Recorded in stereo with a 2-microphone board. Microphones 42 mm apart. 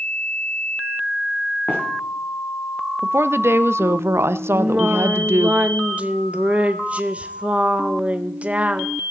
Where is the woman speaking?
70° right (ahead or behind), 0.6 m.